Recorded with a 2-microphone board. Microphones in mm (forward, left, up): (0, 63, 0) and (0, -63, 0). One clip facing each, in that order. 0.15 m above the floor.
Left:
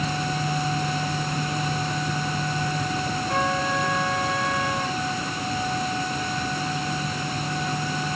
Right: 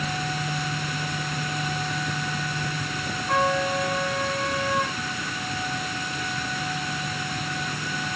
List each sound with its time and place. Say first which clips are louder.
3.3 s a trumpet: right 3 dB; 65° right (ahead or behind), 5.5 m